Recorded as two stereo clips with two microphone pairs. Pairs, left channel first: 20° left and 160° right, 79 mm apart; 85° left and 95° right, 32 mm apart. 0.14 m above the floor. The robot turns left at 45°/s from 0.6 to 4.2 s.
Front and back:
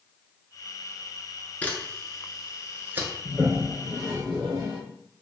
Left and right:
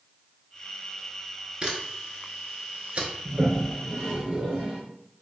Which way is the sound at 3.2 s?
90° right.